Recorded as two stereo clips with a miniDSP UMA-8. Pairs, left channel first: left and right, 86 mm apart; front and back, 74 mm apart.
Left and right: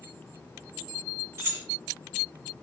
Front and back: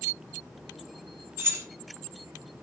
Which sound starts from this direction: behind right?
Keys jangling, at 1.4 s.